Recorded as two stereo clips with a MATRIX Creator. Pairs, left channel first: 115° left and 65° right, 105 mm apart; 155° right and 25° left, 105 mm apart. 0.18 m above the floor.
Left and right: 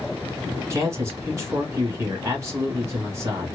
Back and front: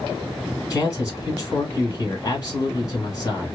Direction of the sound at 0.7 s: 120° right.